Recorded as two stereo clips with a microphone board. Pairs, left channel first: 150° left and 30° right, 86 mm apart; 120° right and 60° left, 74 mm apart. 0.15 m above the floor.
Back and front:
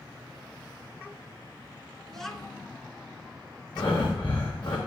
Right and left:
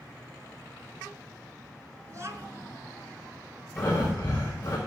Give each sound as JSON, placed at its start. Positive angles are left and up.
{"t": 2.1, "sound": "a child speaking", "azimuth_deg": 70, "distance_m": 1.2}
{"t": 3.8, "sound": "breathing", "azimuth_deg": 180, "distance_m": 6.5}